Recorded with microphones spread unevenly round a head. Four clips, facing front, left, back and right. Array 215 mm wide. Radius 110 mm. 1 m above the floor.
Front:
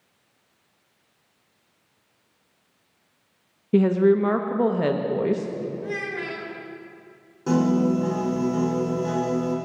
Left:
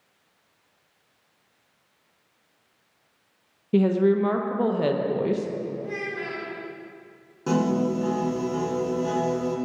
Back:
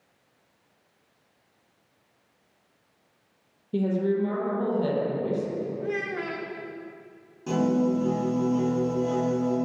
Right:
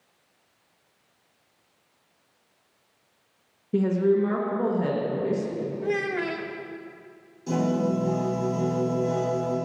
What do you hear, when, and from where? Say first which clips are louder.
3.7 s a woman speaking: left 2 dB, front 7 dB; 30° left, 0.9 m
5.8 s a child speaking: right 5 dB, even; 105° right, 1.4 m
7.5 s a piano: left 2 dB, front 3 dB; 50° left, 3.5 m